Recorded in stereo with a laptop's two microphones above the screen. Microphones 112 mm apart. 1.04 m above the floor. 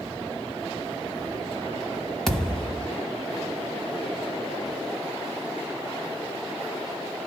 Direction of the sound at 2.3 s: 5° left (ahead or behind).